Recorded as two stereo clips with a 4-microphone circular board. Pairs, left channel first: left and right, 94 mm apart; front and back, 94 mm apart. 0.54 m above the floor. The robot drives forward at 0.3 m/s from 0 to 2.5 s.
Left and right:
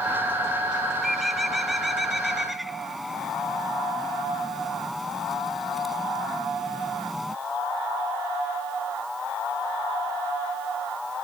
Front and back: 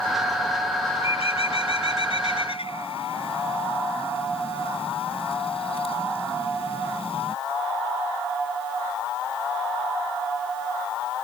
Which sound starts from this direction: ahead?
A bird, at 1.0 s.